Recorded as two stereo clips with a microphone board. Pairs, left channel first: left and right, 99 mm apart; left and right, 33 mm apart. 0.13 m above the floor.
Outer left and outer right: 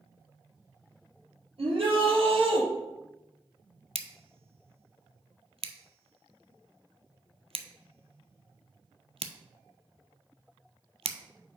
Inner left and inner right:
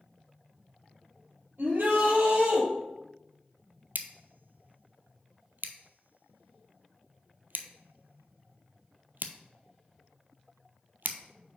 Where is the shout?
65° right (ahead or behind), 3.5 m; by 2.6 s 60° right (ahead or behind), 2.5 m.